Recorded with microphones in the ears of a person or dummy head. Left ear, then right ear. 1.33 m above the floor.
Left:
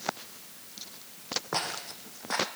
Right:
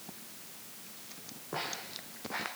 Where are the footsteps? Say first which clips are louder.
Left 1 dB; 55° left (ahead or behind), 3 m.